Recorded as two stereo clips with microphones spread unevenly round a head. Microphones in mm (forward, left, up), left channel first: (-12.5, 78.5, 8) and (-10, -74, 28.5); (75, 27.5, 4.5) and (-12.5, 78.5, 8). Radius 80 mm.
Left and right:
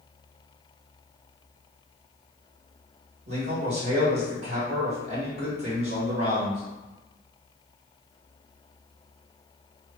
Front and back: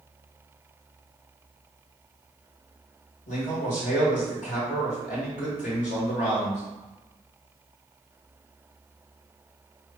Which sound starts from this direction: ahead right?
A man speaking, at 3.3 s.